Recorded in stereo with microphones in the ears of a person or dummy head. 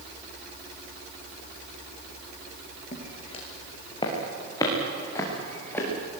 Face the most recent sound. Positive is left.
turn(degrees=10)  # may be behind; listen again after turning